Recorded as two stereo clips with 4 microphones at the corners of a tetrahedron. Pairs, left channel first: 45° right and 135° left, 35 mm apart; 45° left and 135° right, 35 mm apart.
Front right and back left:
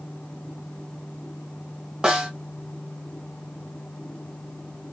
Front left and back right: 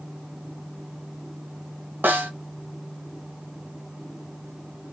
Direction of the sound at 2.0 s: 150° right.